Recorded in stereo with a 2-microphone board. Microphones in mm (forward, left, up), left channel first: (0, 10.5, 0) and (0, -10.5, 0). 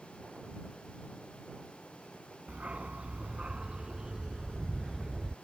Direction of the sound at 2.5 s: 75° right (ahead or behind).